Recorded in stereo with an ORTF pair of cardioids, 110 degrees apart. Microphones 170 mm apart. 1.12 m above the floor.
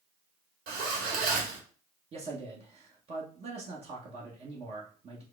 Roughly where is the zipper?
Ahead right.